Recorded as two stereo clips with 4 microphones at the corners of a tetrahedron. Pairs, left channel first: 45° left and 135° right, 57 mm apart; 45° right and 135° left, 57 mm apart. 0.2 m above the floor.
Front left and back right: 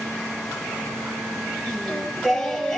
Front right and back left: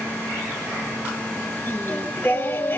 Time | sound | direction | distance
1.7 | singing | 30° right | 1.9 m